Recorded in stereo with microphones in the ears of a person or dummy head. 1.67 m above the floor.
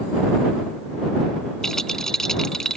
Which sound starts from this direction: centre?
A rattle, at 1.6 s.